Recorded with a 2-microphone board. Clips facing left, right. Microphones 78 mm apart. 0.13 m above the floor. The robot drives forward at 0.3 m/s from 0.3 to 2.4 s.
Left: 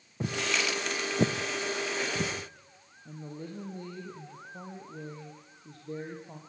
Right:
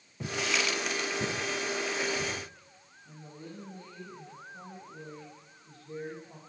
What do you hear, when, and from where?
0.2 s footsteps: 25° left (ahead or behind), 1.3 m; by 2.3 s 85° left, 2.5 m
3.0 s a woman speaking: 45° left (ahead or behind), 4 m